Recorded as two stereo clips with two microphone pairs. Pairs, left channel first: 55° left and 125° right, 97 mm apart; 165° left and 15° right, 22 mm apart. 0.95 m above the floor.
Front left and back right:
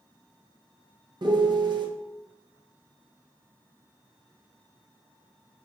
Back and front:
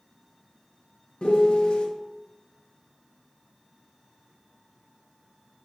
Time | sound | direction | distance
1.2 | a piano | 165° right | 1.1 m